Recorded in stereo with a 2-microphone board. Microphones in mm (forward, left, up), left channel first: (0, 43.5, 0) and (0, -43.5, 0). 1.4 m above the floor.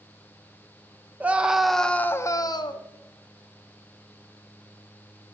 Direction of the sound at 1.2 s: 20° right (ahead or behind).